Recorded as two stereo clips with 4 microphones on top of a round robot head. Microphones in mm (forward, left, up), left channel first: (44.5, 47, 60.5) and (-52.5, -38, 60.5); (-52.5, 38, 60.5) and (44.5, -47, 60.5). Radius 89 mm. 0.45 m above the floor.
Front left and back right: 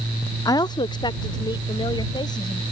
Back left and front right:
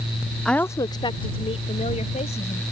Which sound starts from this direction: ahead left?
A woman speaking, at 0.5 s.